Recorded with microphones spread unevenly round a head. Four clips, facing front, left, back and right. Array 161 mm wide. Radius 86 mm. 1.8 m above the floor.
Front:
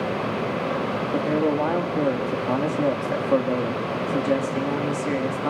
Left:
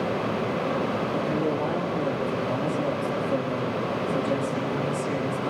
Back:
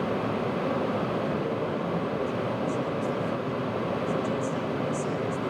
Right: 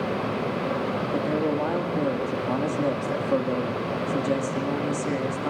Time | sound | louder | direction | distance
1.1 | a man speaking | right 3 dB, front 7 dB | 20° right | 4 m